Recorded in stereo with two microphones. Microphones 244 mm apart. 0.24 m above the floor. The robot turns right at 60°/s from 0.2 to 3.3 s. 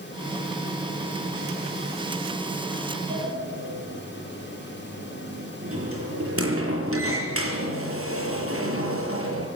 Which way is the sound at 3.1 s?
60° right (ahead or behind).